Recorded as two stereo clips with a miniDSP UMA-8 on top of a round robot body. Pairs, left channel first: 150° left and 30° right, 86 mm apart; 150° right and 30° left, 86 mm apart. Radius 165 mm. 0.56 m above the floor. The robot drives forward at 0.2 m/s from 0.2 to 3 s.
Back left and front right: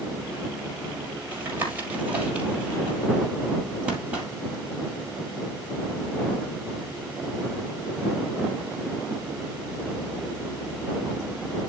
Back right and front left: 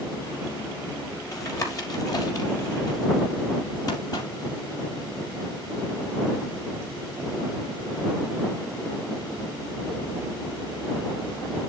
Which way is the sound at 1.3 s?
100° right.